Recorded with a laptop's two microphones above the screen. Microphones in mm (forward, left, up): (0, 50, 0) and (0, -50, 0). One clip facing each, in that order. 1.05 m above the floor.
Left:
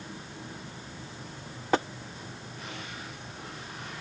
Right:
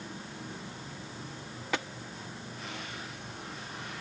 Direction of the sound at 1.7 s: 35° left (ahead or behind).